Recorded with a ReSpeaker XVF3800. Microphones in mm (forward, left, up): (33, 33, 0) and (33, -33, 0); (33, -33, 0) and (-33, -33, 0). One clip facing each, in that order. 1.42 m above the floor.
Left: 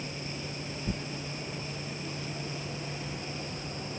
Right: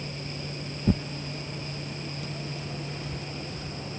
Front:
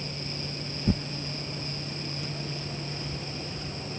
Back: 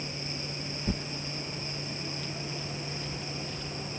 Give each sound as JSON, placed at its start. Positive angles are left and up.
{"t": 0.9, "sound": "tearing paper", "azimuth_deg": -75}